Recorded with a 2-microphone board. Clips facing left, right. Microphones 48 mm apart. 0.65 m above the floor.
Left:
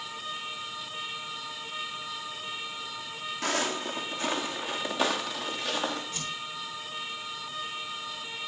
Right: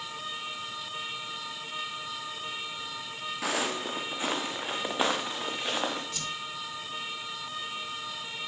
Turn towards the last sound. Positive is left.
turn(degrees=25)  # may be behind; listen again after turning